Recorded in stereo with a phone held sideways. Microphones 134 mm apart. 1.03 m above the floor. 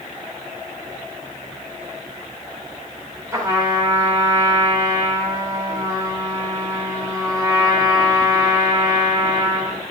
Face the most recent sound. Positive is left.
turn(degrees=-25)  # may be behind; listen again after turning